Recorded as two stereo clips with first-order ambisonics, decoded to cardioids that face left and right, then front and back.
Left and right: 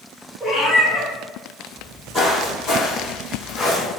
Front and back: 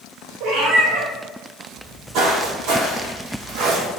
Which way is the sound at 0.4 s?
165° right.